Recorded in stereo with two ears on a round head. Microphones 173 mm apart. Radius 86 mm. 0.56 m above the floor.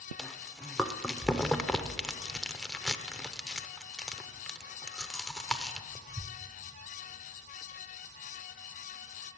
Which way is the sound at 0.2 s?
5° left (ahead or behind).